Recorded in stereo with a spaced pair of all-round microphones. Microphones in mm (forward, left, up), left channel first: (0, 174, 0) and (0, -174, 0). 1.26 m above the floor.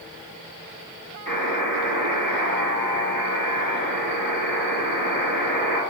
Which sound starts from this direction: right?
A buzzer, at 1.3 s.